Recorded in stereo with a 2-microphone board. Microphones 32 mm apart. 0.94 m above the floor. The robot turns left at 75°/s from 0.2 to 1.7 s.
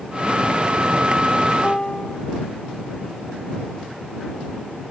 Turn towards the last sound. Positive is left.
turn(degrees=30)  # may be behind; listen again after turning